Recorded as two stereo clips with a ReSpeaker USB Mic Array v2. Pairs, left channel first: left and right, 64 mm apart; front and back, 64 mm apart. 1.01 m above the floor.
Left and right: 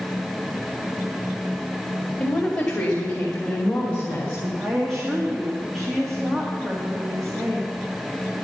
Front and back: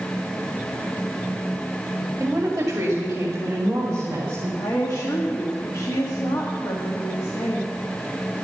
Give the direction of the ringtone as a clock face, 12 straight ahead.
I don't hear a ringtone.